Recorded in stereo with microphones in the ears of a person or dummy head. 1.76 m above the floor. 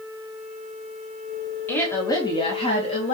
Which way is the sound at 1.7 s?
10° left (ahead or behind).